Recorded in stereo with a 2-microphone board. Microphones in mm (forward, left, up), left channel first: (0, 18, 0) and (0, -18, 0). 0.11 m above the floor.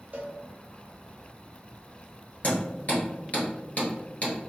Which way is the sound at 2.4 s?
45° left (ahead or behind).